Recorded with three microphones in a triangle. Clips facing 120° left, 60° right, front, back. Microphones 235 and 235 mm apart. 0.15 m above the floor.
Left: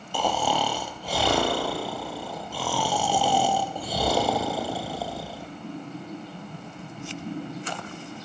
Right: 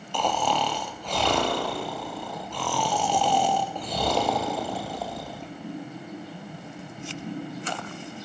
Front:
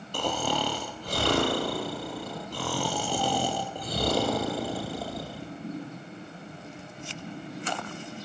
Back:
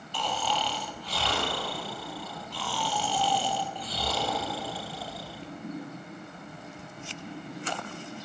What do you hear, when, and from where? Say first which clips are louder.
0.1 s snoring: left 1 dB, front 4 dB; 35° left, 1.8 m